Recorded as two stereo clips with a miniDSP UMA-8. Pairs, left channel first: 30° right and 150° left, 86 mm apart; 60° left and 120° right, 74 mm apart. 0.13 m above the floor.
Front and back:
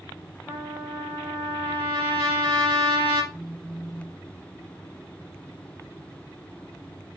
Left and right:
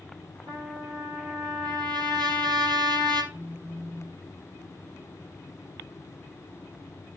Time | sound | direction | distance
0.5 | a trumpet | 110° right | 5 m
3.3 | a phone buzzing | 120° right | 0.9 m